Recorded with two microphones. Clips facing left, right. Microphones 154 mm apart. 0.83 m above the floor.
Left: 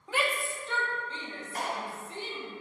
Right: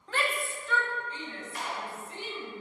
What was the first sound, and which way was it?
A shout, 10° left (ahead or behind).